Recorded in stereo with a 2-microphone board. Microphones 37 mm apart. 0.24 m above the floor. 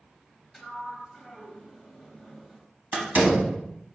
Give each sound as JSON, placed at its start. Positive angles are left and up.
{"t": 0.5, "sound": "a sliding door", "side_deg": 0, "distance_m": 0.6}
{"t": 2.9, "sound": "a door slam", "side_deg": -50, "distance_m": 1.0}